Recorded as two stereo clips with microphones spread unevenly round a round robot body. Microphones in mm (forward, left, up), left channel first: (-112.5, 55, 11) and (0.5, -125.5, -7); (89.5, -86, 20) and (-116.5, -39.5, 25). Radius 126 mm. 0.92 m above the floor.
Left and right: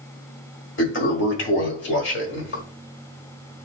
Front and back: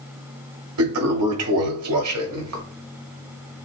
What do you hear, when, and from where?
0.8 s a toilet flushing: 150° left, 1.4 m